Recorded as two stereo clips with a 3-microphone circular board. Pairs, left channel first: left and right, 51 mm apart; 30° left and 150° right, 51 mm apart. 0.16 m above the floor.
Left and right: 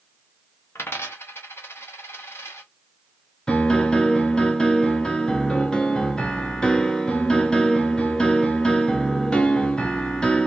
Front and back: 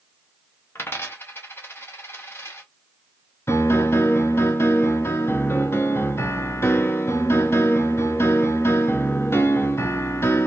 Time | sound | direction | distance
0.8 | a dropped coin | 60° left | 0.9 m
3.5 | a piano | 20° left | 0.6 m